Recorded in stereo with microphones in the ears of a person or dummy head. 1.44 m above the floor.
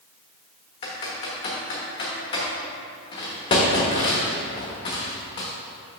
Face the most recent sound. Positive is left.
turn(degrees=25)  # may be behind; listen again after turning